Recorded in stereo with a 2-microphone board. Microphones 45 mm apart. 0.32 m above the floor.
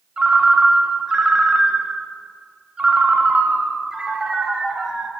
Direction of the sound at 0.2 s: 15° right (ahead or behind).